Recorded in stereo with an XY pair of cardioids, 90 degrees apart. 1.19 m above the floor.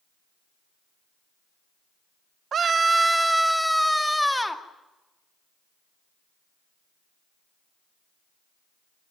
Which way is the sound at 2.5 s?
60° right.